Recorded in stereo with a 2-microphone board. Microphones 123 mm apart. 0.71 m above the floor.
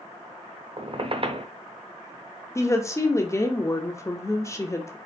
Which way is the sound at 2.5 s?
25° left (ahead or behind).